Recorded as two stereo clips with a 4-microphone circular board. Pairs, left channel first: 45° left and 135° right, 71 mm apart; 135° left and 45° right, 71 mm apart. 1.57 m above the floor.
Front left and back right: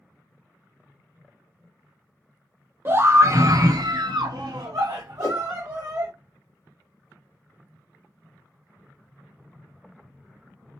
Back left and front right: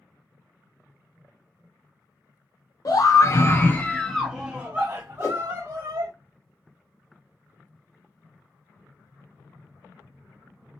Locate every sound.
2.9 s a scream: 170° left, 0.9 m; by 6.1 s 85° right, 1.3 m
5.2 s a whoosh: 85° left, 2.5 m